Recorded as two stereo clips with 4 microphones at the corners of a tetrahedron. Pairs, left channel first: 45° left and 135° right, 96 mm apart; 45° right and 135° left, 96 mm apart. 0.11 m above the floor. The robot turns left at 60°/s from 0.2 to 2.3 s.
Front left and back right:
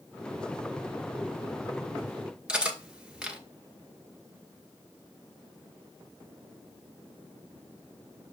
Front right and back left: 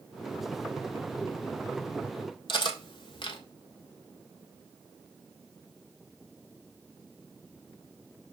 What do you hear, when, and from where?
2.5 s cutlery clinking: 55° right, 1.4 m